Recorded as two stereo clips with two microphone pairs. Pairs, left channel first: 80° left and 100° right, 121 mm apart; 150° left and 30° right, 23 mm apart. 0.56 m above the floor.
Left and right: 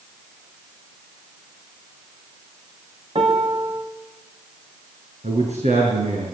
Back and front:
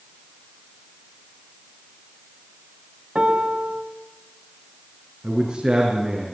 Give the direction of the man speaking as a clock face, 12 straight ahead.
3 o'clock.